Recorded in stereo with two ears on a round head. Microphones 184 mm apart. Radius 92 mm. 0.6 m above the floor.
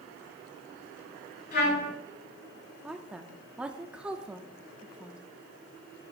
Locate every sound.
1.5 s a trumpet: 50° left (ahead or behind), 5 m
2.8 s a woman speaking: 5° right (ahead or behind), 0.8 m